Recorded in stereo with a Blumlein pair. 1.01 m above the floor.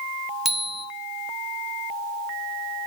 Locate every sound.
0.5 s a bicycle bell: 10° right, 2 m